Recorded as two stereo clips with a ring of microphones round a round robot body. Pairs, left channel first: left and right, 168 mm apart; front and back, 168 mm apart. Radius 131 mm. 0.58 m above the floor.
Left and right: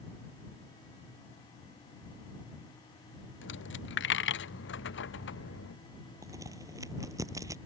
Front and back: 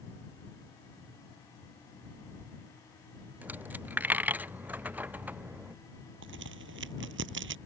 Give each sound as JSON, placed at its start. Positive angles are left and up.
{"t": 3.4, "sound": "a dropped coin", "azimuth_deg": 100}
{"t": 6.2, "sound": "a crack", "azimuth_deg": -165}